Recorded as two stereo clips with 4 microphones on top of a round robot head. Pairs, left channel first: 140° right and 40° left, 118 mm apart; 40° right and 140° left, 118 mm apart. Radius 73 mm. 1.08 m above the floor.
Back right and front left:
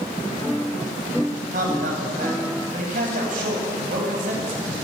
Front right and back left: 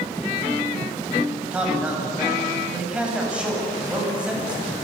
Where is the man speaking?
60° left, 8.5 m.